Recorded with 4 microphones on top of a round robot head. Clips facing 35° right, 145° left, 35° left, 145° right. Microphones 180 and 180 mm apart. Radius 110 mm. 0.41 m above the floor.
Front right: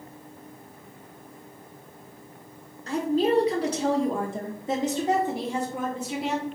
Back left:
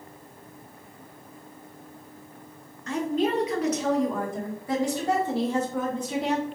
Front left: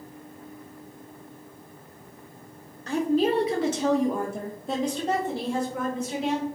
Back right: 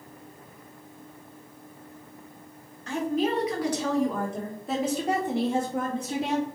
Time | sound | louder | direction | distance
2.9 | a woman speaking | front right 2 dB, front left 4 dB | 5° left | 1.5 m